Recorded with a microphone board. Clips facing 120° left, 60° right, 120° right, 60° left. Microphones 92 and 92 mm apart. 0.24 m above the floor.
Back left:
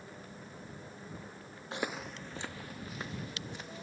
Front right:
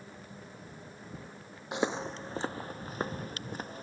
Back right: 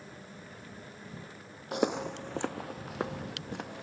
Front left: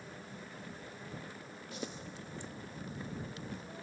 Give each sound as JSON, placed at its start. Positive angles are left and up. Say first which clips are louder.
{"t": 1.7, "sound": "footsteps", "louder": "front right 6 dB, back right 15 dB", "azimuth_deg": -130}